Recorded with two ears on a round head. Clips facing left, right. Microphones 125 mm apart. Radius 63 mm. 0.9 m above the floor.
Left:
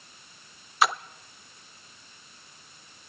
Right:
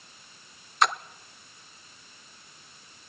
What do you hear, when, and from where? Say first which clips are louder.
0.8 s a splash: even; 5° left (ahead or behind), 0.6 m